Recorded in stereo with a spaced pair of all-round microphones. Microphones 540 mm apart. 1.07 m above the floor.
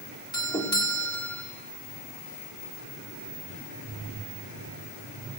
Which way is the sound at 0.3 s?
5° left (ahead or behind).